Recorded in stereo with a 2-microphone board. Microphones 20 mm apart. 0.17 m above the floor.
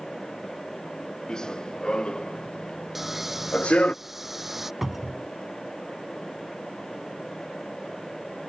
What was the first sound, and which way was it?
Running footsteps, 40° left (ahead or behind).